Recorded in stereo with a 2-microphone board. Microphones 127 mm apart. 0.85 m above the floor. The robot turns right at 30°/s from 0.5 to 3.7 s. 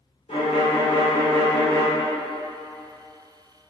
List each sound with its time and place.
0.3 s a violin: 120° left, 1.1 m; by 1.9 s 160° left, 1.1 m